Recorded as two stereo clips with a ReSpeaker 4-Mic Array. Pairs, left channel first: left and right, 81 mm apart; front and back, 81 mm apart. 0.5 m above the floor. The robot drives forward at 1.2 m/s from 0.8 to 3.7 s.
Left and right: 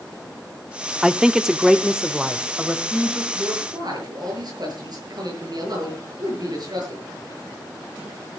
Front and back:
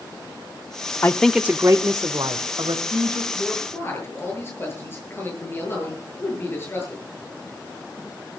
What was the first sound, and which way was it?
A man speaking, 15° right.